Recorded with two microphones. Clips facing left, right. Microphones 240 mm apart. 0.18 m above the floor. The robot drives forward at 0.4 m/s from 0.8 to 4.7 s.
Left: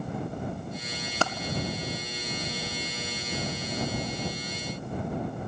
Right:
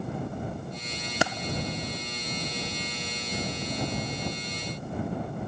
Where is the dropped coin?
10° right (ahead or behind), 0.6 m.